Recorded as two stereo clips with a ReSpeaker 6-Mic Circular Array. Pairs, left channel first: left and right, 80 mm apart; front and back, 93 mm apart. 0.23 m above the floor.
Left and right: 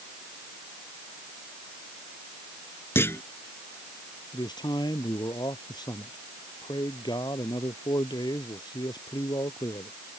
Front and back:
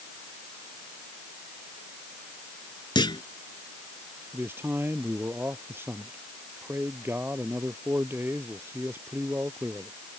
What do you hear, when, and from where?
3.0 s a clunk: 30° left
4.3 s a man speaking: 115° left